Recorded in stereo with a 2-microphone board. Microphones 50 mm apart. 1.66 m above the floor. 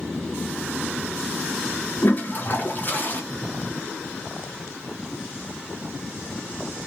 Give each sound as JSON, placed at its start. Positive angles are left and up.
{"t": 2.0, "sound": "a toilet flushing", "side_deg": 40, "distance_m": 0.8}